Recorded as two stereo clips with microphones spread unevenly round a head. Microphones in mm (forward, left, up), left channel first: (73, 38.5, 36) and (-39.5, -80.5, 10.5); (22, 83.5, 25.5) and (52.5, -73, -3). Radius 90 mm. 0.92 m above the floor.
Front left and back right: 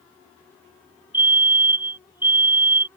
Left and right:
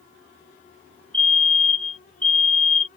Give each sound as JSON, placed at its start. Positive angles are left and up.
{"t": 1.1, "sound": "a fire alarm", "azimuth_deg": -160}